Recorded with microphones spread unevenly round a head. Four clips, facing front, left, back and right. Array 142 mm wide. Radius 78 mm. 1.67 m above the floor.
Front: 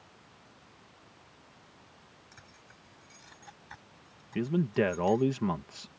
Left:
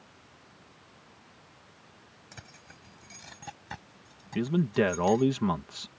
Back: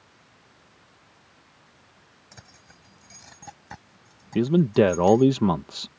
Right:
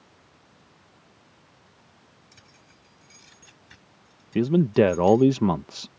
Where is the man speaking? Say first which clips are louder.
Right 7 dB, back 9 dB; 130° right.